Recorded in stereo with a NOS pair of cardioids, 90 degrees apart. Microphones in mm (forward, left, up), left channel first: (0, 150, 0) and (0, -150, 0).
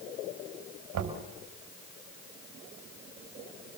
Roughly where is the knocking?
Right.